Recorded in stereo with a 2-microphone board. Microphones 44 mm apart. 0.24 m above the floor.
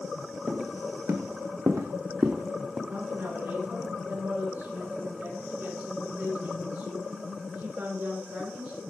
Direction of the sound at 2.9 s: 65° right (ahead or behind).